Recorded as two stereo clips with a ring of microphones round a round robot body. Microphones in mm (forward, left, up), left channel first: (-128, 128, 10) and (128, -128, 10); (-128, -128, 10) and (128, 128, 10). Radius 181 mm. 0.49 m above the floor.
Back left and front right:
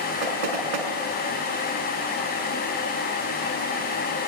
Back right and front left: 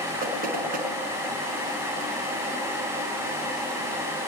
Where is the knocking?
25° right, 5 m.